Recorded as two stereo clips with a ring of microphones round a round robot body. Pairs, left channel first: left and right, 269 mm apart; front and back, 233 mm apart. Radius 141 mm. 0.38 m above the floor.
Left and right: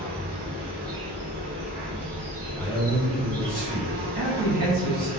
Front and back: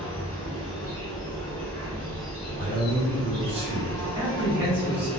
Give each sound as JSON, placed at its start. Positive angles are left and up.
{"t": 0.0, "sound": "an insect", "azimuth_deg": -75, "distance_m": 1.2}
{"t": 2.6, "sound": "a man speaking", "azimuth_deg": 170, "distance_m": 1.4}
{"t": 4.2, "sound": "a man speaking", "azimuth_deg": -100, "distance_m": 1.8}